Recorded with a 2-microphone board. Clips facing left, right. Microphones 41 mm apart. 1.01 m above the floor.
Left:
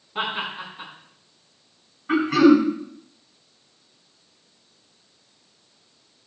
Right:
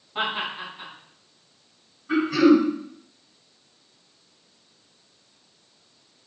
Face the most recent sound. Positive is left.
turn(degrees=40)  # may be behind; listen again after turning